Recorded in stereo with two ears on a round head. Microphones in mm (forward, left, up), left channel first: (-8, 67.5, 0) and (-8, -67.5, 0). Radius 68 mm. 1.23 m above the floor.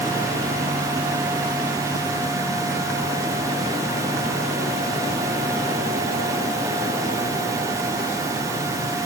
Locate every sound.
Only background noise.